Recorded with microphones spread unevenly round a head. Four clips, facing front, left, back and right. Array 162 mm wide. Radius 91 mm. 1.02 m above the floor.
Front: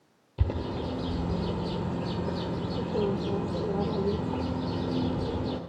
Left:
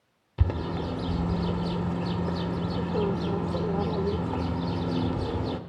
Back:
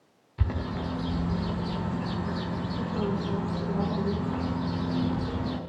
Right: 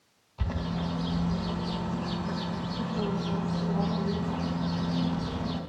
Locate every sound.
0.4 s a bird: 70° left, 1.7 m